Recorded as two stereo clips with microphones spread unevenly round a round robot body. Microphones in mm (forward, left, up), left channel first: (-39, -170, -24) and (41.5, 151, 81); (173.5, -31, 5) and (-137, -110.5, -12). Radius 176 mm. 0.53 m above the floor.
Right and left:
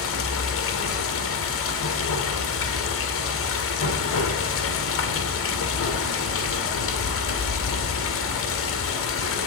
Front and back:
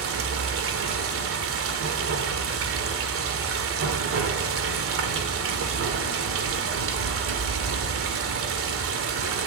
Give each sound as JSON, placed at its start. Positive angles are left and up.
{"t": 0.0, "sound": "running water", "azimuth_deg": -125, "distance_m": 1.7}